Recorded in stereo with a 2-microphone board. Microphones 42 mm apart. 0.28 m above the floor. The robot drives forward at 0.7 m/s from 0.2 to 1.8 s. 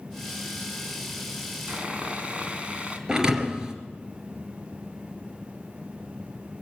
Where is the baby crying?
I don't hear a baby crying.